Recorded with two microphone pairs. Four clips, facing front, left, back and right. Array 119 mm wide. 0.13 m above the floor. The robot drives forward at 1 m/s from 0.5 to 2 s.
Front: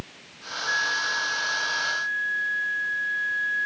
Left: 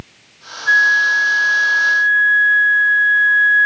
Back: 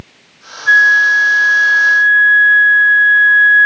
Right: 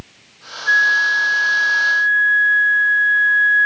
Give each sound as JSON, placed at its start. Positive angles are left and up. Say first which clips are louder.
{"t": 0.7, "sound": "a flute", "louder": "left 2 dB, back 18 dB", "azimuth_deg": 170}